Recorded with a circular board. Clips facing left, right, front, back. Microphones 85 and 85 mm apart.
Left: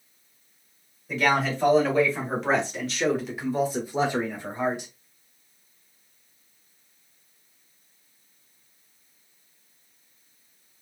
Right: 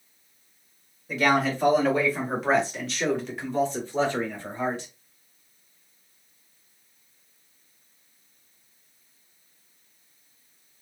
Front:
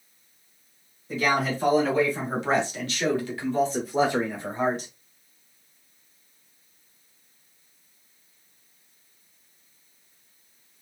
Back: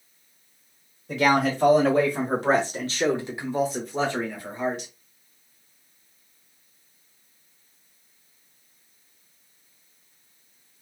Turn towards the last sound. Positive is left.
turn(degrees=20)